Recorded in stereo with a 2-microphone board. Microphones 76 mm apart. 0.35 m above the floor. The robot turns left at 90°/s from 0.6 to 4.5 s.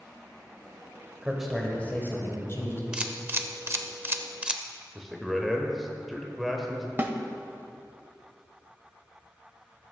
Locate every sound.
1.2 s a man speaking: 160° right, 1.6 m; by 2.8 s 55° left, 1.6 m
2.9 s a camera shutter: 10° right (ahead or behind), 0.6 m
5.0 s a man speaking: centre (ahead or behind), 0.9 m
7.0 s a snare drum: 25° right (ahead or behind), 0.7 m